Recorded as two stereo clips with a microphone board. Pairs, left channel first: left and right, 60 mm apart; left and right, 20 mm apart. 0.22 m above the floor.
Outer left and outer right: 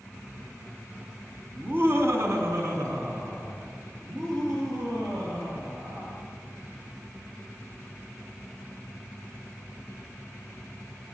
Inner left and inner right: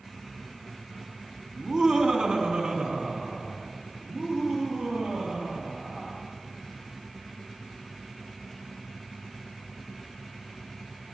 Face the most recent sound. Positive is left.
turn(degrees=-80)